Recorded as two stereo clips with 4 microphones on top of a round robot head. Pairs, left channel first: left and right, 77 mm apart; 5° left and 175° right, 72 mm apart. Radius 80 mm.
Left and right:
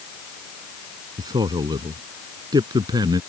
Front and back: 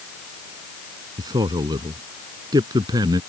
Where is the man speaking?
135° right.